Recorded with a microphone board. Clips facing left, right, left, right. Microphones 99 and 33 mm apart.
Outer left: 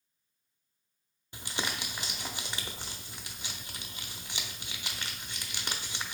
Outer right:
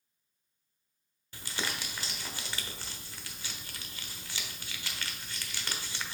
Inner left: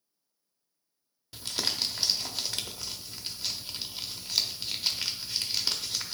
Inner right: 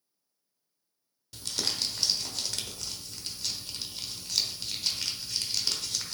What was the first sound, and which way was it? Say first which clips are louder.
Crumpling: outer left 1 dB, inner left 1 dB; 20° left (ahead or behind).